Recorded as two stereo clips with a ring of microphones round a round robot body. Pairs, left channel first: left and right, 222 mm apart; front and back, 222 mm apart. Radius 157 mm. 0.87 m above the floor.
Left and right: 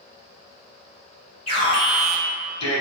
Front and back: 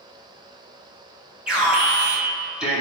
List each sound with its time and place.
1.5 s an alarm: 100° left, 1.3 m